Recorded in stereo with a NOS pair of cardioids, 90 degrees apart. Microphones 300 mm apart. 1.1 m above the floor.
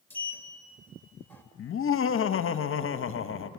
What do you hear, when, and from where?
0.1 s a sliding door: 5° left, 2.5 m
1.6 s laughter: 45° left, 1.1 m